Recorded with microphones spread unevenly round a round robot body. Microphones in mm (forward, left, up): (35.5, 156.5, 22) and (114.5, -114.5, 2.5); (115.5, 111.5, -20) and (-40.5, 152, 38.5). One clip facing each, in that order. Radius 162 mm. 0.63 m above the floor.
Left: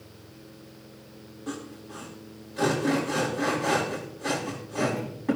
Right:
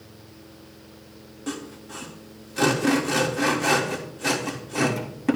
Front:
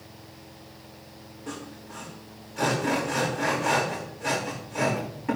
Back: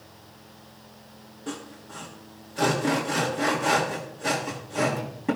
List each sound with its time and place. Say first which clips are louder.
1.5 s sawing: right 3 dB, back 2 dB; 120° right, 1.5 m